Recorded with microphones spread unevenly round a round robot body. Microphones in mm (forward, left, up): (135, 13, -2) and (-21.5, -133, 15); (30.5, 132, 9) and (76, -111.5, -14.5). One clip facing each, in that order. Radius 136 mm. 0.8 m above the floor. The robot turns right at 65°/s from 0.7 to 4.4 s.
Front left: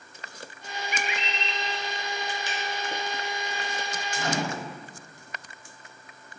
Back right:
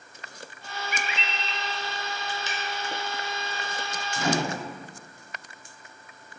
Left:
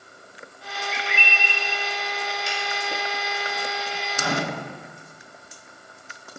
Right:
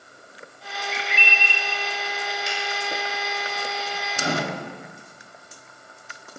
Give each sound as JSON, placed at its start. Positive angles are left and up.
{"t": 0.9, "sound": "a bird", "azimuth_deg": -85, "distance_m": 0.7}
{"t": 2.5, "sound": "a finger snap", "azimuth_deg": -70, "distance_m": 1.5}
{"t": 4.2, "sound": "a microwave", "azimuth_deg": -150, "distance_m": 0.7}